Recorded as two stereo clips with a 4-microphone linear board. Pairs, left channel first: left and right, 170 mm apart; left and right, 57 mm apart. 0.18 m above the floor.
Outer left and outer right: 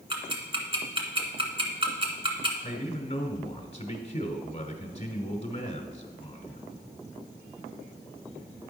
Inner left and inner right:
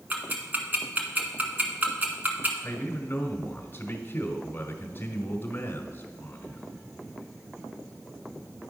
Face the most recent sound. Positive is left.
turn(degrees=35)  # may be behind; listen again after turning